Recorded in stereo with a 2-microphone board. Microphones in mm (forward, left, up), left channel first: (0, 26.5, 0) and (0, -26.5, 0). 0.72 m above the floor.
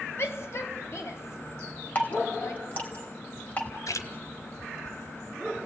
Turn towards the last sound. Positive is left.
turn(degrees=75)  # may be behind; listen again after turning